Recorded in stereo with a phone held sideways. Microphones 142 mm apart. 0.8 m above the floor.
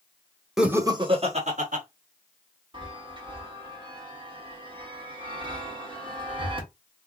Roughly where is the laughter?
Centre.